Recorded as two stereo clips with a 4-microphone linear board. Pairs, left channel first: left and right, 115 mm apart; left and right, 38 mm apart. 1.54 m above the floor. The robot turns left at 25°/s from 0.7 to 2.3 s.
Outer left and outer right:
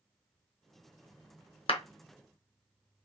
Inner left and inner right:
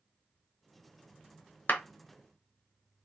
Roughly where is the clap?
Left.